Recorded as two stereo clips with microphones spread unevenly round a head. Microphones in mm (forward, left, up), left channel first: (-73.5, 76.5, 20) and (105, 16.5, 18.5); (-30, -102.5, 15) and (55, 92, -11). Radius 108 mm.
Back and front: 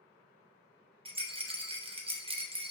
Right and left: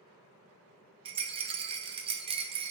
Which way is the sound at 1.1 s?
25° left.